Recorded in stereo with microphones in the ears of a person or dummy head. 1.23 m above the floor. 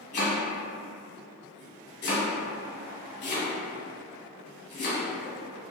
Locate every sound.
0.1 s chopping: 35° left (ahead or behind), 0.9 m